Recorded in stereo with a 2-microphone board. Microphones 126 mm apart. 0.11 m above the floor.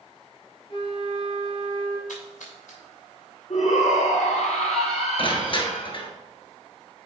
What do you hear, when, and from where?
0.7 s a flute: 45° left (ahead or behind), 1.7 m
2.1 s a splash: 85° left, 3.5 m
3.5 s a shout: 65° left (ahead or behind), 2.5 m
5.2 s crushing: 45° left (ahead or behind), 1.1 m